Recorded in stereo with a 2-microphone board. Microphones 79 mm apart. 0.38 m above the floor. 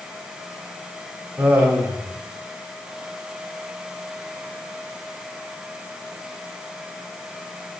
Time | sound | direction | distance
1.4 | laughter | 20° right (ahead or behind) | 2.0 m